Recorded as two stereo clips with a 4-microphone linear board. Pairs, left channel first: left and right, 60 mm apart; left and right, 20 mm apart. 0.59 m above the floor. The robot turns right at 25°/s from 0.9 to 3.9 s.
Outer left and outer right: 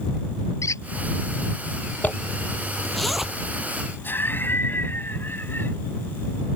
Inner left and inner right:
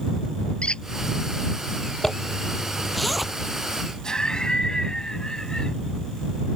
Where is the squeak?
60° left (ahead or behind).